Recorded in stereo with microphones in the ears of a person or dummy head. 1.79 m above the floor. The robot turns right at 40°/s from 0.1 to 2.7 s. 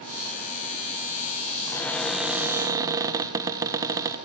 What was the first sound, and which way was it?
A cupboard door, 160° left.